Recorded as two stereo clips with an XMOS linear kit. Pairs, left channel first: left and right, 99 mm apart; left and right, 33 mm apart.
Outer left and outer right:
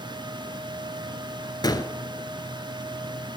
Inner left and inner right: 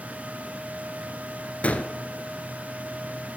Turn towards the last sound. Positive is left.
turn(degrees=40)  # may be behind; listen again after turning